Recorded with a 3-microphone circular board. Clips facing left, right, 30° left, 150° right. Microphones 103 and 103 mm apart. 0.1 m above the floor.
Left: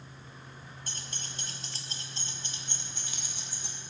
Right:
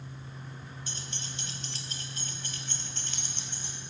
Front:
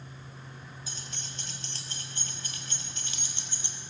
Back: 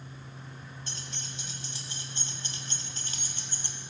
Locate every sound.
0.9 s keys jangling: 115° left, 1.6 m; by 3.8 s straight behind, 1.9 m